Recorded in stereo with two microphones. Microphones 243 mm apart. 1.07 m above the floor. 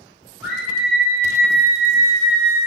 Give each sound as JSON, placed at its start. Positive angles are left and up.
{"t": 0.4, "sound": "a scream", "side_deg": 0, "distance_m": 1.5}